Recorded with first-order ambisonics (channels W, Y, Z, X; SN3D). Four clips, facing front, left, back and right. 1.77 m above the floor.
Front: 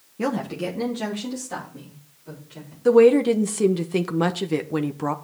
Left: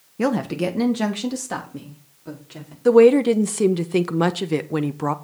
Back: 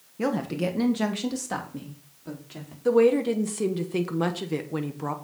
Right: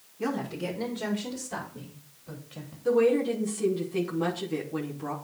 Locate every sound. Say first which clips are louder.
0.2 s a woman speaking: left 9 dB, front 1 dB; 80° left, 1.1 m; by 2.8 s 125° left, 4.5 m
2.9 s a woman speaking: left 10 dB, front 5 dB; 70° left, 0.9 m